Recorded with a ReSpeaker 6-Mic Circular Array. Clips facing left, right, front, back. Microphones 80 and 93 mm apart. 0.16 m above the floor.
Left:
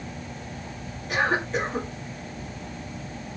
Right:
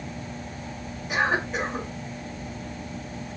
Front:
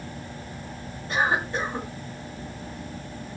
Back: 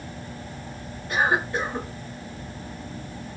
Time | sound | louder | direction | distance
1.1 | a cough | even, back 1 dB | 20° right | 1.9 m